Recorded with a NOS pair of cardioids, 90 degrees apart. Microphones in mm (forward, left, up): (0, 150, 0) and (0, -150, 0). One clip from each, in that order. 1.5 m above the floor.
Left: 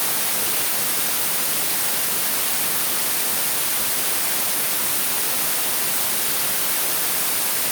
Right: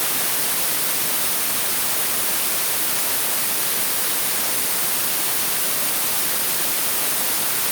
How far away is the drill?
No drill in this recording.